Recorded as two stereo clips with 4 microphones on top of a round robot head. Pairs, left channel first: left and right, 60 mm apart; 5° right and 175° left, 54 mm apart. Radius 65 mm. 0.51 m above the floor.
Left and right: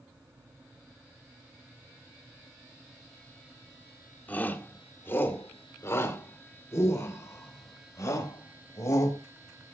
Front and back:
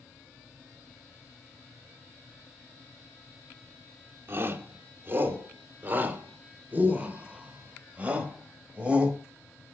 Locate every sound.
4.3 s a shout: 145° left, 2 m; by 9.2 s 110° left, 4 m